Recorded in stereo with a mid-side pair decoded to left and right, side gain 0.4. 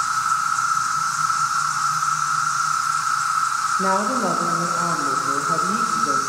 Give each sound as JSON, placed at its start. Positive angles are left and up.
{"t": 0.0, "sound": "an insect", "azimuth_deg": -5, "distance_m": 0.8}
{"t": 3.8, "sound": "a woman speaking", "azimuth_deg": -5, "distance_m": 1.2}